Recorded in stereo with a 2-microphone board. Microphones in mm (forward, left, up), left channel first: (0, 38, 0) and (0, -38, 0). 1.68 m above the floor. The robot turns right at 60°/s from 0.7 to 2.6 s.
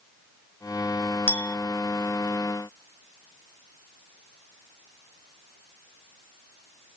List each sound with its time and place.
1.3 s a clink: 20° left (ahead or behind), 0.6 m; by 1.6 s 25° left (ahead or behind), 0.6 m